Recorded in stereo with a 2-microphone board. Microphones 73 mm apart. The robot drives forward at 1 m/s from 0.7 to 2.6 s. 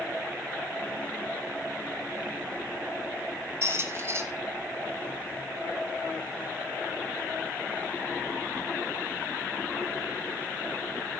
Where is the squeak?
40° right (ahead or behind), 1.2 m.